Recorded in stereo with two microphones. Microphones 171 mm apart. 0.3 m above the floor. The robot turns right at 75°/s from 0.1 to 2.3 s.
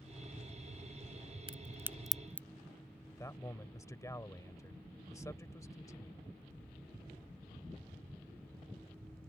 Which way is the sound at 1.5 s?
35° right (ahead or behind).